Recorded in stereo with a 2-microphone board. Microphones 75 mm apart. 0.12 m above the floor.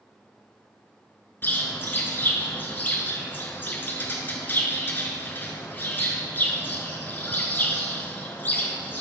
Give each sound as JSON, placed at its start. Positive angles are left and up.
{"t": 1.4, "sound": "a bird", "side_deg": 30, "distance_m": 1.1}